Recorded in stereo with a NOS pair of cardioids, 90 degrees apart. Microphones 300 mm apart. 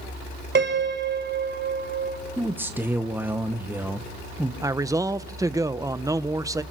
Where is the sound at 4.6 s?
10° right, 0.7 m.